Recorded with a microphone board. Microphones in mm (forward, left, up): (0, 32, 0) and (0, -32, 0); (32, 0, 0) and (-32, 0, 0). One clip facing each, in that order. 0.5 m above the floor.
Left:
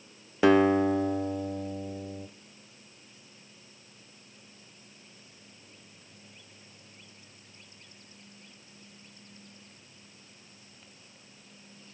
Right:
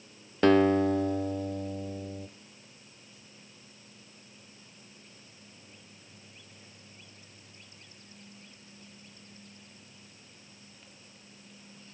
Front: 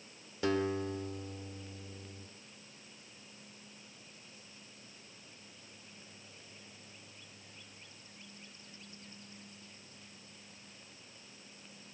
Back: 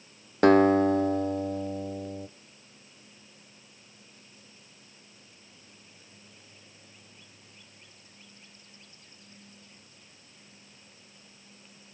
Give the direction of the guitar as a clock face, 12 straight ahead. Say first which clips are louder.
Left 1 dB, back 14 dB; 6 o'clock.